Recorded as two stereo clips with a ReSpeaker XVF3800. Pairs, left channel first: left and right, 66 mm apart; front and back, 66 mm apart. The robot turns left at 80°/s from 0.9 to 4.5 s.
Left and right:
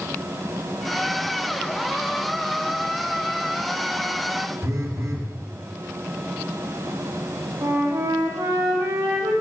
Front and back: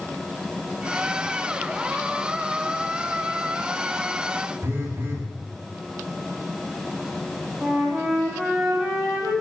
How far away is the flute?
About 2.5 m.